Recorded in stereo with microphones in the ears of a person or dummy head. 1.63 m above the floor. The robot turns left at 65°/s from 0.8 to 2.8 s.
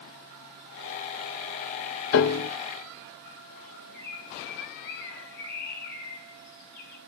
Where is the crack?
I don't hear a crack.